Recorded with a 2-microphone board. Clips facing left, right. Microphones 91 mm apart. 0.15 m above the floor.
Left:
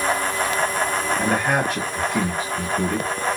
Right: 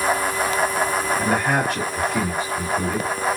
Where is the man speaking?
5° right (ahead or behind), 3 m.